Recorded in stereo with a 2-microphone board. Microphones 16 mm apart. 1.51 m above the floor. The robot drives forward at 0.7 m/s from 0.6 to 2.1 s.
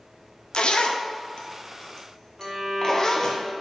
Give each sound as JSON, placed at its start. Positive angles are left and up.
{"t": 0.5, "sound": "a zipper", "side_deg": 65, "distance_m": 0.7}
{"t": 2.4, "sound": "a violin", "side_deg": -40, "distance_m": 2.0}